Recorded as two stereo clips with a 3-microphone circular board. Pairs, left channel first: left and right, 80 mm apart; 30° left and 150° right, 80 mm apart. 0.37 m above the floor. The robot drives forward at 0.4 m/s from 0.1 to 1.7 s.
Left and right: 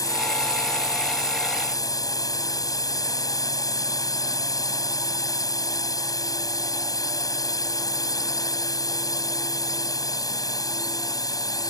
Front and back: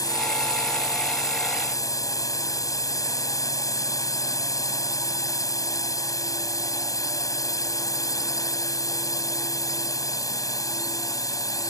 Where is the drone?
60° left.